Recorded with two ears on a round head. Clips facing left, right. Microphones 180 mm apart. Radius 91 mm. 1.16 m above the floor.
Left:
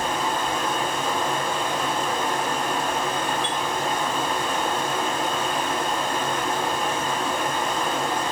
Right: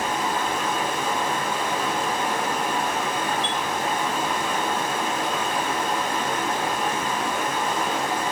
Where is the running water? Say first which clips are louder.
Even; 10° right (ahead or behind), 2.0 m.